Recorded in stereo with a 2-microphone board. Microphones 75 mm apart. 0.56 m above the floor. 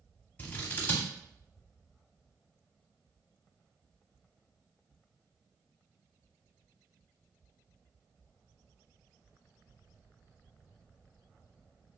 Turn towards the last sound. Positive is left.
turn(degrees=25)  # may be behind; listen again after turning